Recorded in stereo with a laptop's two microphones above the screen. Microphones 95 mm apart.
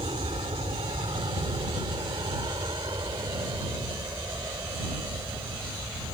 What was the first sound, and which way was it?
An aircraft, 70° right (ahead or behind).